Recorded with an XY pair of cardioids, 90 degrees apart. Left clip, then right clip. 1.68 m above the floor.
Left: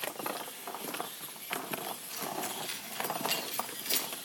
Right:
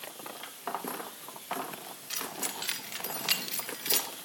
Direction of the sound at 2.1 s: 70° right.